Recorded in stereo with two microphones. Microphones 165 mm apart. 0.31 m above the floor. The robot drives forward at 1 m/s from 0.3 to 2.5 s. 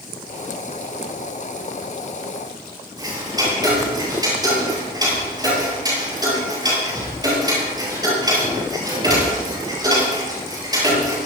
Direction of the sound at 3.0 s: 25° right (ahead or behind).